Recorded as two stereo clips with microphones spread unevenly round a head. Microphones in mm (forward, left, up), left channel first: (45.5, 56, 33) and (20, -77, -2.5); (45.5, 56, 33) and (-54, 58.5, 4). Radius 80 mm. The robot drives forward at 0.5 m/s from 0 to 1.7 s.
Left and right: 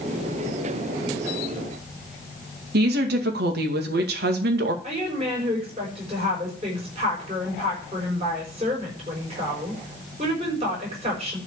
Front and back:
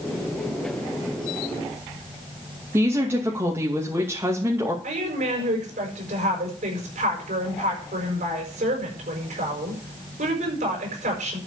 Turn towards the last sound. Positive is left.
turn(degrees=-160)